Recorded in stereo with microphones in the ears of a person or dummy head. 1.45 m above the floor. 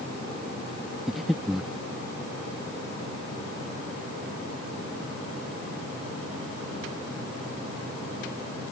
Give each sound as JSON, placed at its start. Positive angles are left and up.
{"t": 1.1, "sound": "breathing", "side_deg": 0}